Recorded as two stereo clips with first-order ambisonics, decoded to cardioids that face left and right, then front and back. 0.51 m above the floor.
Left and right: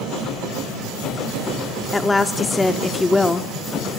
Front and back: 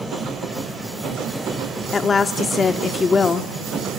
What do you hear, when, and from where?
1.9 s a woman speaking: 25° left, 0.6 m